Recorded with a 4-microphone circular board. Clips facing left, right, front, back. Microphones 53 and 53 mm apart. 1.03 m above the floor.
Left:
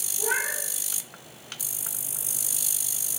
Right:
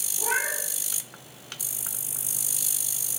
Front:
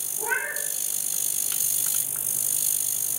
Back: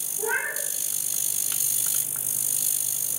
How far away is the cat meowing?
About 4.5 m.